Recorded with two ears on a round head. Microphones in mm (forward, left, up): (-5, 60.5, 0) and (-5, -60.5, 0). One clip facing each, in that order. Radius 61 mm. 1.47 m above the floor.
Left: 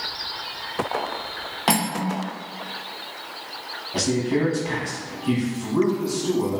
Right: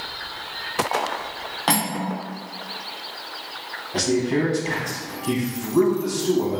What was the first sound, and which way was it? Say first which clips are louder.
Cutlery clinking: left 1 dB; 10° left (ahead or behind).